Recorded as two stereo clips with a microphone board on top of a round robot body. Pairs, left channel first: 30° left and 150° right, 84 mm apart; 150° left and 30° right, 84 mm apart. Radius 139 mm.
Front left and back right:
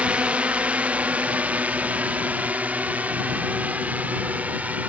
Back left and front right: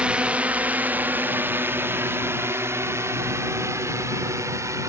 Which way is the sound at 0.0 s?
90° right.